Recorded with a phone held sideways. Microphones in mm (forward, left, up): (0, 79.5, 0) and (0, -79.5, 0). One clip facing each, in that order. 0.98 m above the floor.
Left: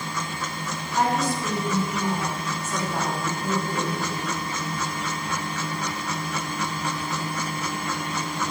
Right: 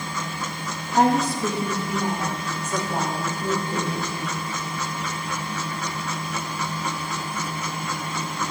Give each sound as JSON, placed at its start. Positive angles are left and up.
{"t": 0.9, "sound": "a woman speaking", "side_deg": -60, "distance_m": 2.5}